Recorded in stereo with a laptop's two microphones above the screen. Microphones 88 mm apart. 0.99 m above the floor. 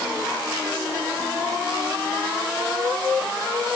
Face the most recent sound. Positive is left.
No sound to turn to.